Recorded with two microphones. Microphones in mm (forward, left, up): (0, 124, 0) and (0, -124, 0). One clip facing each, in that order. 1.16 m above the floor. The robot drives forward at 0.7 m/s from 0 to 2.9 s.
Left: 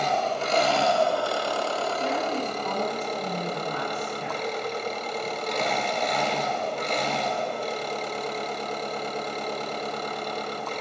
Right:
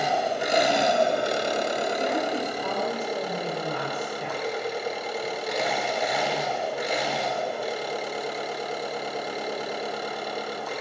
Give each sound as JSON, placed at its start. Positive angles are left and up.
{"t": 0.0, "sound": "an engine running", "side_deg": -10, "distance_m": 1.1}
{"t": 2.0, "sound": "a woman speaking", "side_deg": -65, "distance_m": 5.0}